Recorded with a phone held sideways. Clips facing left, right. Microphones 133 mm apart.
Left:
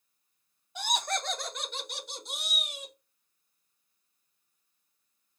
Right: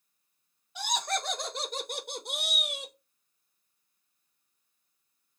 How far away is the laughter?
About 0.6 m.